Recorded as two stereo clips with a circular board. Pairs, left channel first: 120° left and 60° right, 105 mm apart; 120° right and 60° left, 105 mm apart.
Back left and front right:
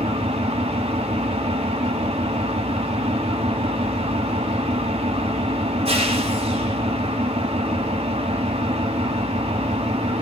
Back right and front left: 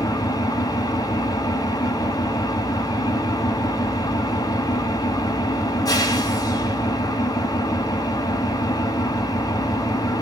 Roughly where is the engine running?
Ahead right.